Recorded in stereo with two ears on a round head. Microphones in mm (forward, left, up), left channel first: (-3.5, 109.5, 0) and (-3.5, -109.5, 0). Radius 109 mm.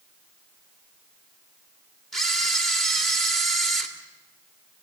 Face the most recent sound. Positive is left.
turn(degrees=0)  # may be behind; listen again after turning